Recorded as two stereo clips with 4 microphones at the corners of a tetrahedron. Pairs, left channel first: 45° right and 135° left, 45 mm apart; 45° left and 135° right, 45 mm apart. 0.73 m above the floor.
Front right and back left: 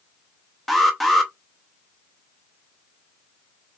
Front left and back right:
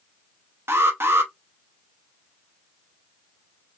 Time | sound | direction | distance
0.7 | an alarm | 130° right | 0.8 m